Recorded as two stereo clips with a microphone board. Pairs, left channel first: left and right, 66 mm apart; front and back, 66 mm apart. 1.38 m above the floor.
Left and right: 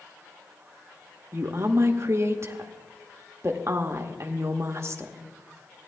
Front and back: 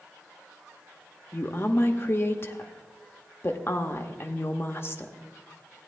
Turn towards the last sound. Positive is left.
turn(degrees=-50)